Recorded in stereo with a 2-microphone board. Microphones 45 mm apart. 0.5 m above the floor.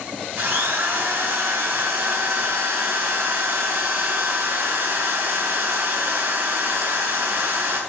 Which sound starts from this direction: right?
A drill, at 0.4 s.